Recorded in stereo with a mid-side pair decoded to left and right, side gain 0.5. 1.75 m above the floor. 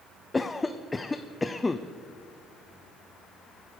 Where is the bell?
No bell in this recording.